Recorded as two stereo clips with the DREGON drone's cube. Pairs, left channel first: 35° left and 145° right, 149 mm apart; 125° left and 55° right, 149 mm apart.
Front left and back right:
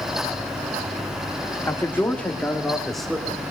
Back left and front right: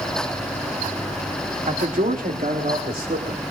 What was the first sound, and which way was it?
A man speaking, 35° right.